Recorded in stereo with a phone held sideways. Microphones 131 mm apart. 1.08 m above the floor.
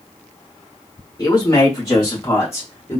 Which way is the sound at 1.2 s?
25° left (ahead or behind).